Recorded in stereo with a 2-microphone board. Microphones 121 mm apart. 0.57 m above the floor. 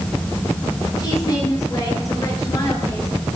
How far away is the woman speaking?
About 9 m.